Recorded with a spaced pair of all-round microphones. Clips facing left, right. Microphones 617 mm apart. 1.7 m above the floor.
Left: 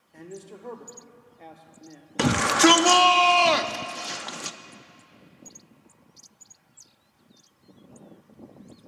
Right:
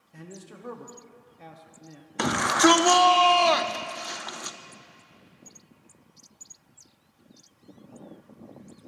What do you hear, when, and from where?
0.1 s a man speaking: 35° right (ahead or behind), 0.9 m
2.2 s a shout: 55° left (ahead or behind), 0.5 m